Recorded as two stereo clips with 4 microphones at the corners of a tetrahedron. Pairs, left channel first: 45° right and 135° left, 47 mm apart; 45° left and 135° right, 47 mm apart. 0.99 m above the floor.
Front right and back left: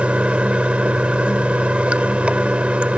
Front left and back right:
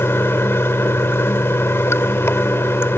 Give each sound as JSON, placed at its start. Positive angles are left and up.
{"t": 0.0, "sound": "running water", "azimuth_deg": 70}